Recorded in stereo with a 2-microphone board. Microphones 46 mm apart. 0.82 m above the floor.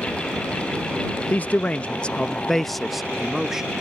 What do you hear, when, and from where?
1.3 s a man speaking: 35° left (ahead or behind); by 3.7 s 10° right (ahead or behind)